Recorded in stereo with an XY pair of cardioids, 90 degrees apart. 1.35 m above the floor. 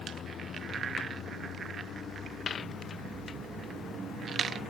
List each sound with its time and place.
0.0 s a vehicle: 65° left; by 4.7 s 75° left